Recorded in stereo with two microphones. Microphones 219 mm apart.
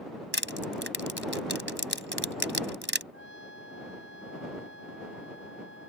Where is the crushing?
65° right (ahead or behind).